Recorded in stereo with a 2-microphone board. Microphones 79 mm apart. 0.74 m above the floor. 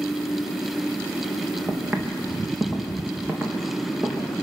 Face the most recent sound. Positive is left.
turn(degrees=-20)  # may be behind; listen again after turning